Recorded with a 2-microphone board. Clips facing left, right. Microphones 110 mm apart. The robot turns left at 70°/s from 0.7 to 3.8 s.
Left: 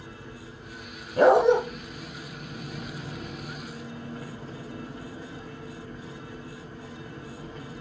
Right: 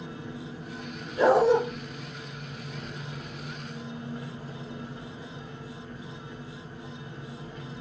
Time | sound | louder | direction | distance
0.0 | an engine running | right 5 dB | 105° right | 5.5 m
1.2 | a dog barking | left 2 dB | 65° left (ahead or behind) | 1.7 m